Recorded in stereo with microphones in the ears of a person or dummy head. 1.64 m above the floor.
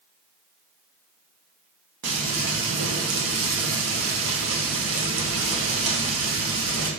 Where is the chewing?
No chewing in this recording.